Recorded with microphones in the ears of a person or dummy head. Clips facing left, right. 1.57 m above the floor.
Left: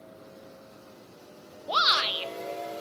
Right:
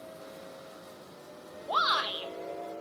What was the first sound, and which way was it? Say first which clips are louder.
A shout: left 2 dB; 35° left (ahead or behind).